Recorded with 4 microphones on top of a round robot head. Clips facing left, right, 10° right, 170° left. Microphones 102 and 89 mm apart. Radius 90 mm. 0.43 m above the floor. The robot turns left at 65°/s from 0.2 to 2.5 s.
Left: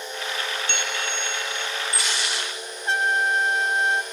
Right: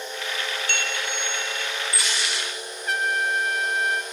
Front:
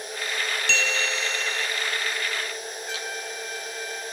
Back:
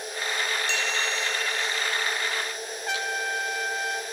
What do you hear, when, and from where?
0.7 s a bell: 20° left, 1.1 m; by 1.7 s 40° right, 1.1 m
2.9 s a trumpet: 150° left, 2.0 m